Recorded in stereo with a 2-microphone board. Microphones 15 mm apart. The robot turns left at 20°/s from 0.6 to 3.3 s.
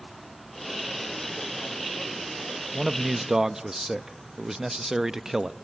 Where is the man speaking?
25° right (ahead or behind), 0.5 m; by 5.5 s 35° right (ahead or behind), 0.5 m.